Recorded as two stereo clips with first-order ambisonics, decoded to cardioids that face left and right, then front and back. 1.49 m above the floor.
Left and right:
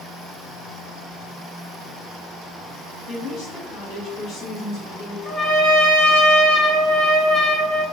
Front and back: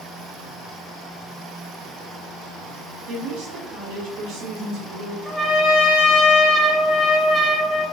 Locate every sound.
3.1 s a woman speaking: 150° left, 0.9 m
5.2 s a trumpet: 95° left, 1.3 m